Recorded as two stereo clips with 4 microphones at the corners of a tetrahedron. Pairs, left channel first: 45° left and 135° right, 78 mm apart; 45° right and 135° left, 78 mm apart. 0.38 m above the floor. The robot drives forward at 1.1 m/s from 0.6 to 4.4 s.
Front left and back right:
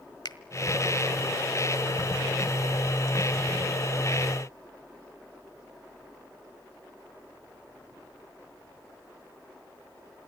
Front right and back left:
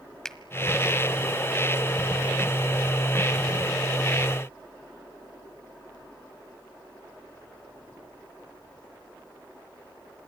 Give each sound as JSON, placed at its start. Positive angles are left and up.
{"t": 0.2, "sound": "a finger snap", "azimuth_deg": 40, "distance_m": 1.3}